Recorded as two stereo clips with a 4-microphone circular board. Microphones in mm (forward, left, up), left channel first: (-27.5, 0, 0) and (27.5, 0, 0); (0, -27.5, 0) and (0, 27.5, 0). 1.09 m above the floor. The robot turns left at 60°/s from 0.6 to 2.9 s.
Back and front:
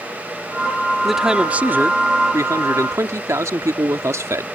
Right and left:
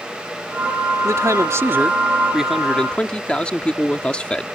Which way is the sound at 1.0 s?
95° left.